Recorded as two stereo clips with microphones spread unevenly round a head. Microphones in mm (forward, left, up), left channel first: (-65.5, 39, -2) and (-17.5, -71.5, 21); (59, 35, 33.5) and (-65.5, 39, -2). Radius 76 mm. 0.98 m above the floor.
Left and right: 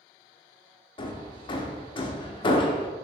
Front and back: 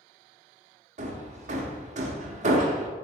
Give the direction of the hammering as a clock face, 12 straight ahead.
7 o'clock.